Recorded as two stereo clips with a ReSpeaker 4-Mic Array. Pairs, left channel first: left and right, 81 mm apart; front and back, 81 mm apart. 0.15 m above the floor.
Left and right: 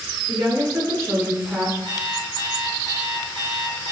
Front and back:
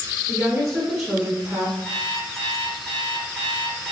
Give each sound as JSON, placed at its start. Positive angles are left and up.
{"t": 0.3, "sound": "a woman speaking", "azimuth_deg": -80, "distance_m": 1.8}
{"t": 1.9, "sound": "an alarm clock", "azimuth_deg": 85, "distance_m": 2.0}